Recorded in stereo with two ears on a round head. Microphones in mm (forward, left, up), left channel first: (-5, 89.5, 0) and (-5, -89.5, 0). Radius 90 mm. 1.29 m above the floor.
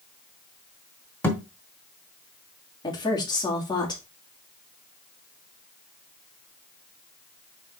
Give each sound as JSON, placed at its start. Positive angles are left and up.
{"t": 1.2, "sound": "a thud", "side_deg": 10, "distance_m": 1.9}
{"t": 2.8, "sound": "a woman speaking", "side_deg": 20, "distance_m": 2.5}